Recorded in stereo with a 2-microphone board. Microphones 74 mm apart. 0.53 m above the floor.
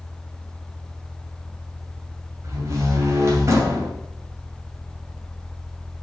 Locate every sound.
2.4 s a door slam: 45° right (ahead or behind), 2.5 m